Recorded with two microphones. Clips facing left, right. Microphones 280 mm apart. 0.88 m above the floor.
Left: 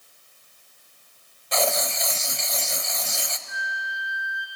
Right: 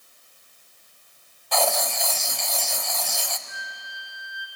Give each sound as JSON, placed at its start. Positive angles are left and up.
{"t": 1.5, "sound": "writing", "side_deg": 25, "distance_m": 0.8}
{"t": 3.5, "sound": "a flute", "side_deg": 5, "distance_m": 3.0}